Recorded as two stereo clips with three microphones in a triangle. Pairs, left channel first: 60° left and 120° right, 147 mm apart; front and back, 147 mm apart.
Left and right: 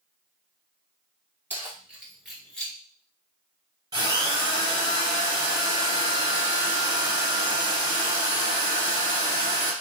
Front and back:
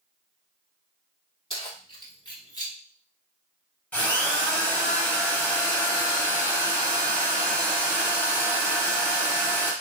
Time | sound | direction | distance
1.5 | keys jangling | 50° right | 1.7 m
3.9 | a drill | 75° right | 2 m